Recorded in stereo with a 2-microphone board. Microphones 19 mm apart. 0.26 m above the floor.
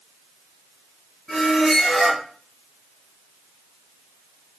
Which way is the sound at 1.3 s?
50° left (ahead or behind).